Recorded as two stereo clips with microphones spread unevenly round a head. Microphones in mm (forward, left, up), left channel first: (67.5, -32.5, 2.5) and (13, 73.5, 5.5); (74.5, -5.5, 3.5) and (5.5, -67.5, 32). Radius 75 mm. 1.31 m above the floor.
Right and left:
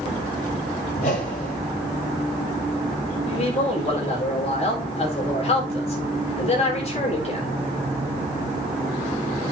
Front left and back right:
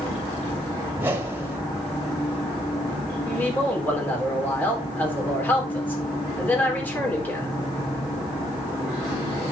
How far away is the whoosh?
About 2.0 m.